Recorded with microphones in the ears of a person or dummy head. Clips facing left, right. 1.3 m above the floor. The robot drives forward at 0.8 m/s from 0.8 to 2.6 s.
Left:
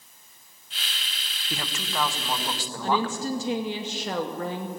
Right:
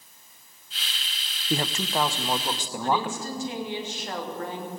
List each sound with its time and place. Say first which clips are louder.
1.5 s a man speaking: right 6 dB; 40° right (ahead or behind), 0.8 m; by 3.2 s 20° right (ahead or behind), 1.5 m
2.8 s a woman speaking: left 1 dB; 60° left (ahead or behind), 2 m